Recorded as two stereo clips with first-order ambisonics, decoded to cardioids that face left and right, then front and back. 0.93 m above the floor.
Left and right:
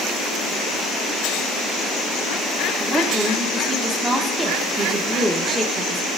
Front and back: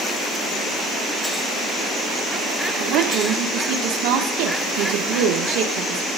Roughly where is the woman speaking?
Behind.